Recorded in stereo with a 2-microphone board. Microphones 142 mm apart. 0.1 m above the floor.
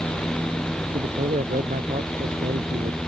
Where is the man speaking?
60° right (ahead or behind).